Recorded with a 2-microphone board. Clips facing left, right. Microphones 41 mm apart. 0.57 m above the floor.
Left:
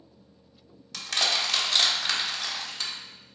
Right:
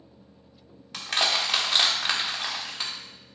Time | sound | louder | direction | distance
0.9 | crushing | right 2 dB | 25° right (ahead or behind) | 1.2 m